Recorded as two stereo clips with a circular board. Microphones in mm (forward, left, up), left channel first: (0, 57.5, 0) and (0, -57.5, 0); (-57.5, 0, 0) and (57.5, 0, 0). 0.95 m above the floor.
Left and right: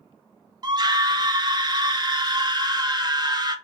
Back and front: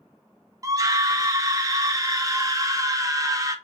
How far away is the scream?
About 0.7 m.